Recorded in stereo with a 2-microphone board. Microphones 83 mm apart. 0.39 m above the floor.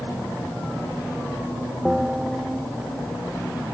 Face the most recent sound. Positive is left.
turn(degrees=-10)  # may be behind; listen again after turning